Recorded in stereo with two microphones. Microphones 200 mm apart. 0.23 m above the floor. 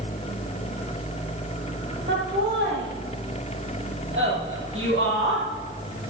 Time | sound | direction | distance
2.1 | laughter | 70° right (ahead or behind) | 6 m